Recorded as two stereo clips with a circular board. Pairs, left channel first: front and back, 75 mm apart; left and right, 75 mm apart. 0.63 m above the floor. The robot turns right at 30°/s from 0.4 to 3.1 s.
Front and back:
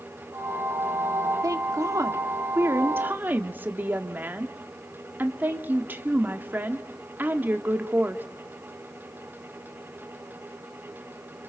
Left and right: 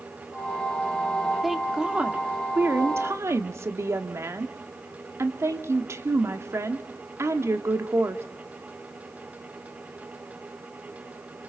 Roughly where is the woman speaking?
Behind.